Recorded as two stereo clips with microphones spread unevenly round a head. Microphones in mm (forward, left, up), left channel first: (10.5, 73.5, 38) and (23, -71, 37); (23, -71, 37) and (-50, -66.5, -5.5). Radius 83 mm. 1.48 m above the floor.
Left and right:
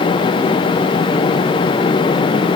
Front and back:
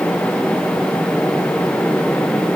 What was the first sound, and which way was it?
Only background noise.